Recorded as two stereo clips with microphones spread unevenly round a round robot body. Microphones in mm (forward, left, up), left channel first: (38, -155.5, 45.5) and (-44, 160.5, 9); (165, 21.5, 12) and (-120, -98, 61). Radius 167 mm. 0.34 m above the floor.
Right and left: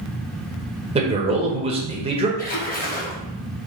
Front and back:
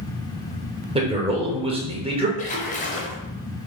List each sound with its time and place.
0.9 s a man speaking: 130° left, 1.1 m
2.4 s a splash: 15° right, 1.2 m